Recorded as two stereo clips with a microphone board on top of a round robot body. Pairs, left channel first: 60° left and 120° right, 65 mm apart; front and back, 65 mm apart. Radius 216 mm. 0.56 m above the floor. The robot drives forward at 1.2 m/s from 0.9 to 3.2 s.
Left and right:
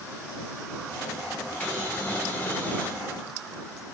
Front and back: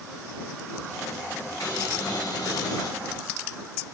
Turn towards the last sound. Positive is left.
turn(degrees=-5)